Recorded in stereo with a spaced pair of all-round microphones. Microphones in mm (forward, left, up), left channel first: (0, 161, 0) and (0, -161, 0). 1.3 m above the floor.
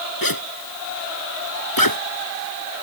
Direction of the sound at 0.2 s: 80° left.